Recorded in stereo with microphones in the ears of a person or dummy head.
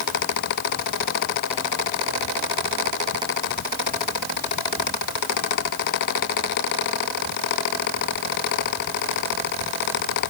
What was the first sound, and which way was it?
Only background noise.